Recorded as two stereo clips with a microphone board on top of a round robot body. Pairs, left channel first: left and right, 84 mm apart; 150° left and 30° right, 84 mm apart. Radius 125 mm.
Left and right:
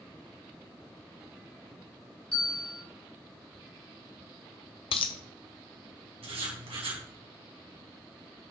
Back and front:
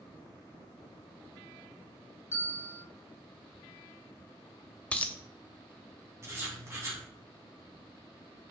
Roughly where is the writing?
Right.